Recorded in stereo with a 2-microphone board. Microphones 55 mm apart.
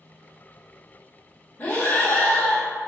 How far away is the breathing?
About 1.0 m.